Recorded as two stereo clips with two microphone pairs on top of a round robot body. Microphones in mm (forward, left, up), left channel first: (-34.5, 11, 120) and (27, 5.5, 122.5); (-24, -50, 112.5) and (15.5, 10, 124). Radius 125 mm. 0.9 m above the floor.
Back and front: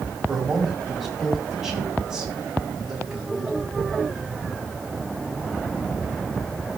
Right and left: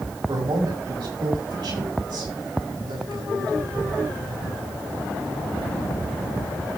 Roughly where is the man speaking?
Left.